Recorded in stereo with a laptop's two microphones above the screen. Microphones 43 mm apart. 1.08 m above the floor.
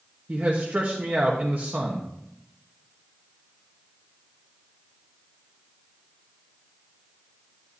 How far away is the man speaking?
About 1.2 m.